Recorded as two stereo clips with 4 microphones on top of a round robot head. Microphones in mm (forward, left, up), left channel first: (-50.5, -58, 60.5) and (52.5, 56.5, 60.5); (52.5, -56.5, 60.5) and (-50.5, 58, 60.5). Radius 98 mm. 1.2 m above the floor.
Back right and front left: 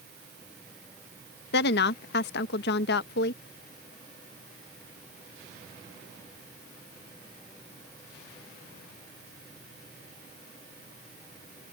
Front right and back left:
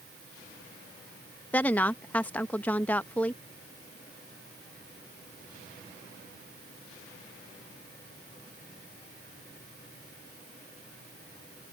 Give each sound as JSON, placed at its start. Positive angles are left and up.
{"t": 1.5, "sound": "a woman speaking", "azimuth_deg": -130}